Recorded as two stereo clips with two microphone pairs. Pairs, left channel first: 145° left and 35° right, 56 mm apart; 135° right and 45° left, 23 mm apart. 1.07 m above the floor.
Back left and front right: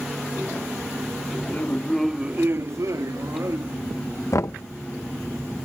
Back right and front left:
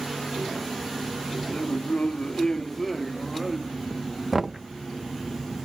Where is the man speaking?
160° right; by 3.8 s 35° right.